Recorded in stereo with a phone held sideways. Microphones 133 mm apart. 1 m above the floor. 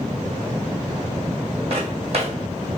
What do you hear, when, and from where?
1.7 s footsteps: 50° right (ahead or behind), 2 m